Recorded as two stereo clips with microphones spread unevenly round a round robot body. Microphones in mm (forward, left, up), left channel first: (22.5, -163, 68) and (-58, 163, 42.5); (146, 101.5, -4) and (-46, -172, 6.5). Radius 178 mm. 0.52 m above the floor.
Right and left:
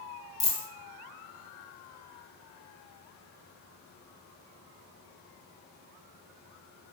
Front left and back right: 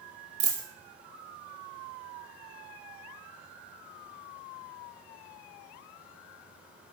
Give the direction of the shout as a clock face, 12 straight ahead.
I don't hear a shout.